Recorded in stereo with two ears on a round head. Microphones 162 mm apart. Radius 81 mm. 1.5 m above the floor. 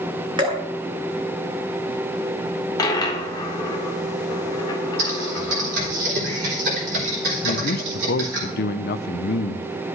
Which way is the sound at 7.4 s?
50° left (ahead or behind).